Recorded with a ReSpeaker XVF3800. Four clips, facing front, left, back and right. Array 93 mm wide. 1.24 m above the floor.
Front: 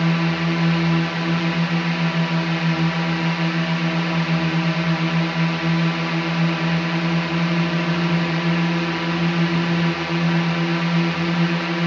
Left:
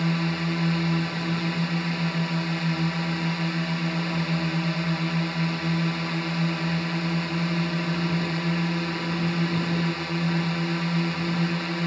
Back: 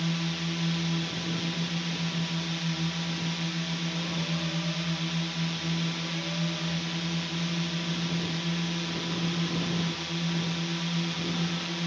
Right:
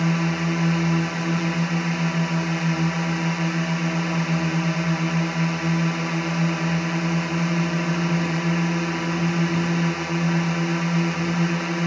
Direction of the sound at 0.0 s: 20° right.